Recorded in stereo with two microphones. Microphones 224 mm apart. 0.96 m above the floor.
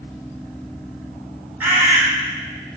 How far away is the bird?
About 0.9 m.